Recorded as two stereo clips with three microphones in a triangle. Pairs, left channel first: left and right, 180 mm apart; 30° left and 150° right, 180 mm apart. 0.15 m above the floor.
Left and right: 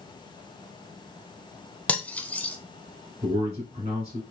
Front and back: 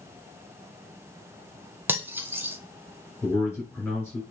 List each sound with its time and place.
1.9 s cutlery clinking: 160° left, 0.6 m
3.2 s a man speaking: 50° right, 2.5 m